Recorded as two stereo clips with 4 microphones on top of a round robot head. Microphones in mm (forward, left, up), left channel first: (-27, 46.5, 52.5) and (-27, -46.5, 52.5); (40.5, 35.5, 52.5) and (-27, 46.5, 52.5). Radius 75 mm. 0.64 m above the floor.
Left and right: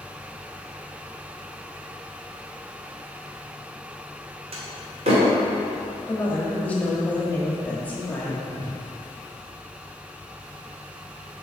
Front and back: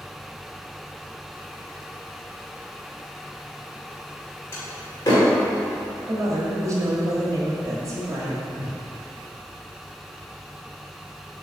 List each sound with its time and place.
4.5 s a door slam: 70° right, 1.5 m
6.1 s a woman speaking: 160° left, 1.5 m
8.5 s a whoosh: 120° right, 0.7 m